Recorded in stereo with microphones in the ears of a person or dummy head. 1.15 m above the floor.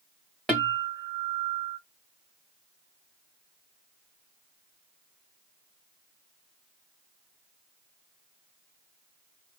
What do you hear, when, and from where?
0.5 s a guitar: centre (ahead or behind), 1.6 m